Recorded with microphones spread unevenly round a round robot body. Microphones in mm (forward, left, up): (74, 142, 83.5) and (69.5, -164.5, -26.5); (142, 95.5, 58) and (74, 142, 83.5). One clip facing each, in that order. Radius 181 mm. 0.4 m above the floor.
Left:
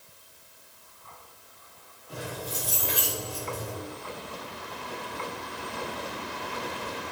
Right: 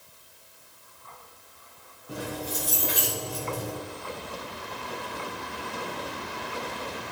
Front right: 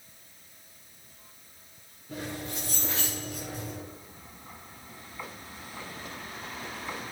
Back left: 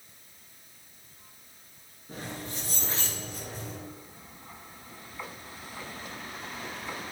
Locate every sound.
2.1 s keys jangling: 140° right, 6 m